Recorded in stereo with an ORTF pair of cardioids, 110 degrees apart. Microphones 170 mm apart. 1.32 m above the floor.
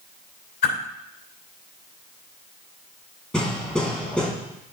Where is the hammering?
5° left, 4.5 m.